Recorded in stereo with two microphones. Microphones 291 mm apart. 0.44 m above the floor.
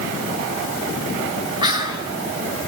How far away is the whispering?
About 1.8 m.